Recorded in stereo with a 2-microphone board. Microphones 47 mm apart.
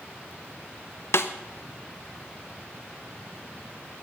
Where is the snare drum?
65° left (ahead or behind), 0.9 m.